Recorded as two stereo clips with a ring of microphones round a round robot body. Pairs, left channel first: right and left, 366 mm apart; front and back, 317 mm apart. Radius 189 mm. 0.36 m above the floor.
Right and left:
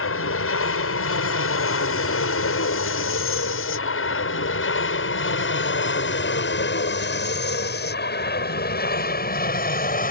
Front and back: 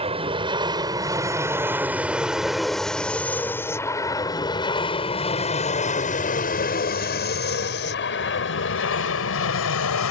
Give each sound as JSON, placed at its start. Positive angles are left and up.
{"t": 0.0, "sound": "an aircraft", "azimuth_deg": -115}